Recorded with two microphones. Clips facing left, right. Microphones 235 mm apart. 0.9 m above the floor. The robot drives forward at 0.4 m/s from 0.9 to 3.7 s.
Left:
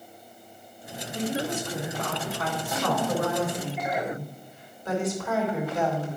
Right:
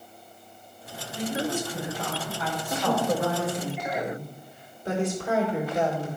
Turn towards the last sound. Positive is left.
turn(degrees=-30)  # may be behind; listen again after turning